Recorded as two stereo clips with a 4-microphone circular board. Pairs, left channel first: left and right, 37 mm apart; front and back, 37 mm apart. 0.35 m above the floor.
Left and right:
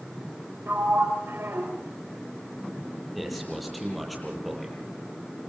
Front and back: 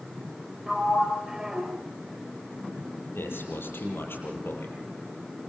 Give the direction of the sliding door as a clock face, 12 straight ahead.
3 o'clock.